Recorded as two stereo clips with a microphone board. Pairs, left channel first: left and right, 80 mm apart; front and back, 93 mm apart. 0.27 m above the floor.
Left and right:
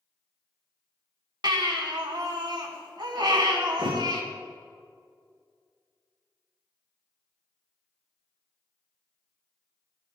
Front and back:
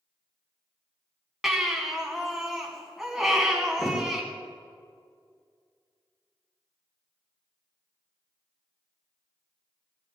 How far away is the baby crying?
About 1.5 m.